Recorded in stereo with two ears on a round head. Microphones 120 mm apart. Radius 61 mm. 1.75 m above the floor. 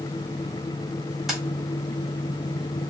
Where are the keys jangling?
5° right (ahead or behind), 1.7 m.